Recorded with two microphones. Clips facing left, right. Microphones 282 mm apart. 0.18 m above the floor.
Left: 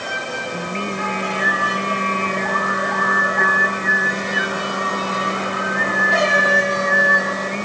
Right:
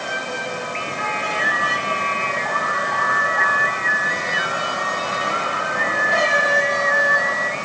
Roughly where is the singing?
Left.